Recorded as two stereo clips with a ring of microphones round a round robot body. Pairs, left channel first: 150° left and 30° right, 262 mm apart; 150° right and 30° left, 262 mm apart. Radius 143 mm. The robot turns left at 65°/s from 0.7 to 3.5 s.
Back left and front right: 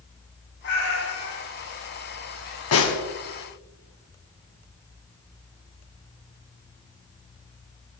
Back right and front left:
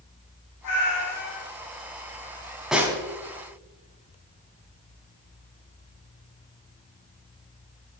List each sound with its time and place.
0.6 s a cat meowing: 165° right, 5.5 m; by 1.4 s 150° left, 5.5 m
2.7 s a snare drum: 120° left, 2.5 m; by 3.0 s 100° left, 2.5 m